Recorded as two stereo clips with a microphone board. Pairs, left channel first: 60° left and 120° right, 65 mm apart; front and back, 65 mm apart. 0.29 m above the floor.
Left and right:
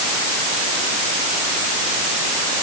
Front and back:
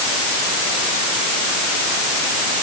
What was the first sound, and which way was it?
Only background noise.